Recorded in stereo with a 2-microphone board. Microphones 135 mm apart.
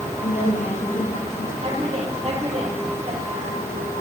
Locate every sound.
0.2 s a woman speaking: 80° left, 9 m
1.6 s a woman speaking: 45° right (ahead or behind), 4.5 m